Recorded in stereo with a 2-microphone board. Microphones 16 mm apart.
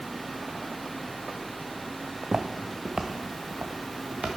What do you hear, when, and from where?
2.1 s footsteps: 60° right (ahead or behind), 1.0 m; by 4.3 s 85° right, 2.5 m